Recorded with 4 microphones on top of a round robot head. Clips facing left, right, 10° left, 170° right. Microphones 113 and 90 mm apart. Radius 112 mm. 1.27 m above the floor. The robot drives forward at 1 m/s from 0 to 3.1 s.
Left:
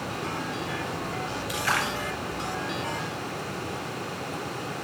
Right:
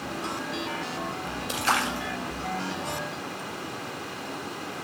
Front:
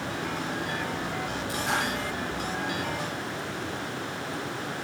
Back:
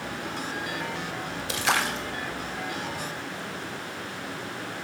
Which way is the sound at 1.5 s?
160° right.